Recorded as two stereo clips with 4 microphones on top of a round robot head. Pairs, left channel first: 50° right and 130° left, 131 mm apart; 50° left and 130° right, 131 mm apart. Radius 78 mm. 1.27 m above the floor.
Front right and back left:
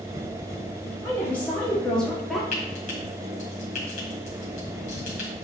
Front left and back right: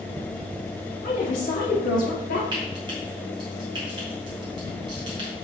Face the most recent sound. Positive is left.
turn(degrees=-75)